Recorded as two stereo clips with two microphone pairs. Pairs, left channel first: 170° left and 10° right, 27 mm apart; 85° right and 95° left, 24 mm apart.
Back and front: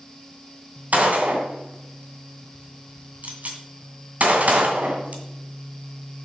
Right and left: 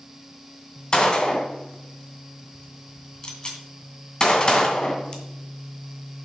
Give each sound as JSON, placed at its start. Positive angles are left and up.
{"t": 0.9, "sound": "a gunshot", "azimuth_deg": -30, "distance_m": 2.0}